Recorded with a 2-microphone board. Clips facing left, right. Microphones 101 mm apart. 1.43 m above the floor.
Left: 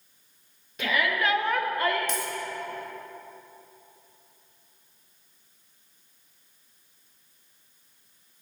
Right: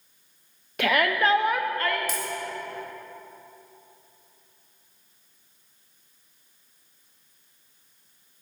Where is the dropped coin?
5° right (ahead or behind), 1.2 m.